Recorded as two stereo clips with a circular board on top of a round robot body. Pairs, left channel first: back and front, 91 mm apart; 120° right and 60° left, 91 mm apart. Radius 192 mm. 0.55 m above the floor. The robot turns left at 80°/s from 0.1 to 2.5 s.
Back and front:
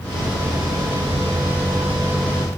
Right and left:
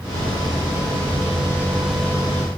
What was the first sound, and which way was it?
Only background noise.